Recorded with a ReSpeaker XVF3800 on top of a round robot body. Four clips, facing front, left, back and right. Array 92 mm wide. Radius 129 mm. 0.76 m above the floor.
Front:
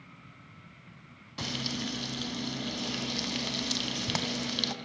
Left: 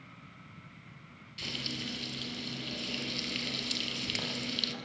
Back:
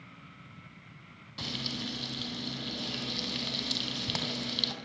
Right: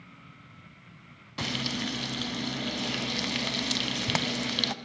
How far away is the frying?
About 2.5 m.